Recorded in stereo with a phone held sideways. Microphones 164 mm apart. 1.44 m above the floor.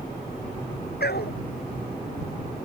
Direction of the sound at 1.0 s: 85° left.